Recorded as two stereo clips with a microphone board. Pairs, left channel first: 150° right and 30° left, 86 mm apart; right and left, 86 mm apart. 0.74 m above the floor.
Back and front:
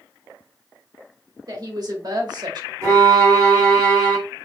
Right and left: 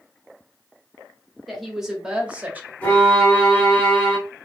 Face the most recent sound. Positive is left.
turn(degrees=-20)